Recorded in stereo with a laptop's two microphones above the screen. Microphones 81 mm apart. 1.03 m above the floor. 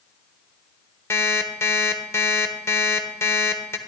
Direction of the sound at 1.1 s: 35° left (ahead or behind).